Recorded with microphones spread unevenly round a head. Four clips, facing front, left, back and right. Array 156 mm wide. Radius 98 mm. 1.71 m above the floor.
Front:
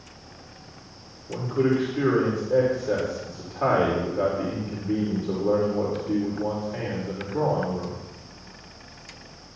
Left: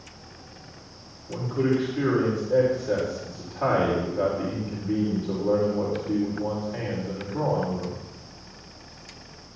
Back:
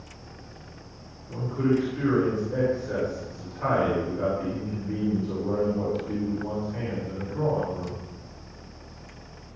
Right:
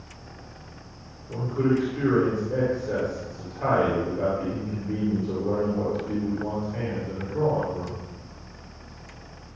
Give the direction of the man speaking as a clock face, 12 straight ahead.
12 o'clock.